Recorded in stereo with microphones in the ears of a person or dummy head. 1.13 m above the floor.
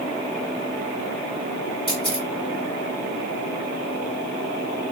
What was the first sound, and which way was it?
A camera shutter, 30° left (ahead or behind).